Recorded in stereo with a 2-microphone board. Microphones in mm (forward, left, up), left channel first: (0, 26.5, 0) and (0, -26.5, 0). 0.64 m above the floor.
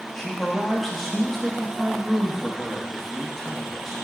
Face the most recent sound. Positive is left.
turn(degrees=5)  # may be behind; listen again after turning